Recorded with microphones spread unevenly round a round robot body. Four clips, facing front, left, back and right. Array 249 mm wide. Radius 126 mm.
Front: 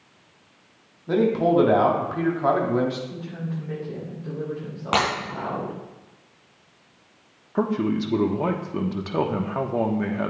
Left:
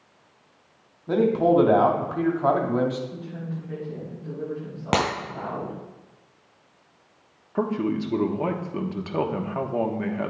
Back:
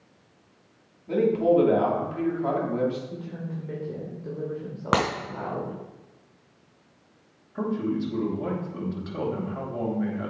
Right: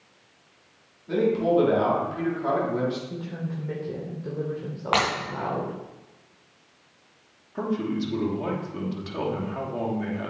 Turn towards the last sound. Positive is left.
turn(degrees=25)